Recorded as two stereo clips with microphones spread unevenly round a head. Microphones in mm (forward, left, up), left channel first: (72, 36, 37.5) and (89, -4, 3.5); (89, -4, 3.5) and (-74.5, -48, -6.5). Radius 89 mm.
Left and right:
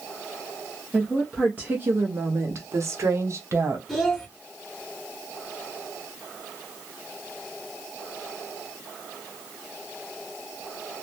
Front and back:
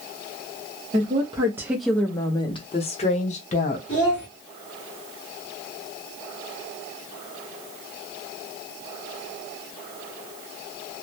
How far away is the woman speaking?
About 0.7 m.